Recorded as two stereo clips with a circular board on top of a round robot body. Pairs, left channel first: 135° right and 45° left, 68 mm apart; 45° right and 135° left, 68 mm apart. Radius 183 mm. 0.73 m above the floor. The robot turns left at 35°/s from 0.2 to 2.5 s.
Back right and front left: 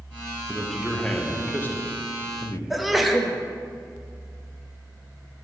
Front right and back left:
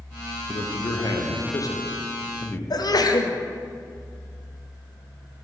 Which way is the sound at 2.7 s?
45° right.